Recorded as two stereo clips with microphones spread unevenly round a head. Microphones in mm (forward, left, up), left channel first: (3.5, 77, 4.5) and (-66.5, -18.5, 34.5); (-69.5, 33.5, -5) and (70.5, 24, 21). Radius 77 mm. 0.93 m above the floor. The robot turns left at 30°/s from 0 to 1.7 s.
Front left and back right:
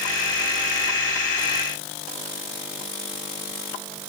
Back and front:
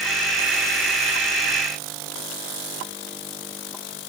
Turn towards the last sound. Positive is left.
No sound to turn to.